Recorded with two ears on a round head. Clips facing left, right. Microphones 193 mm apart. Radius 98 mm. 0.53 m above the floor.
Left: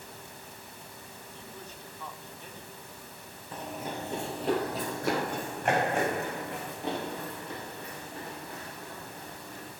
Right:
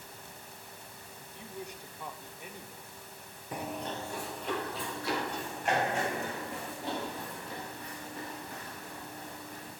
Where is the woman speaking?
15° right (ahead or behind), 1.0 m; by 3.4 s 10° right (ahead or behind), 1.8 m.